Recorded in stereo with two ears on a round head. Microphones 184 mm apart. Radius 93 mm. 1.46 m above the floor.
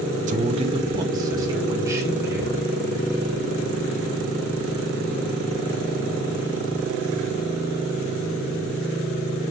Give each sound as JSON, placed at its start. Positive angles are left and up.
{"t": 0.3, "sound": "a man speaking", "side_deg": -35, "distance_m": 0.8}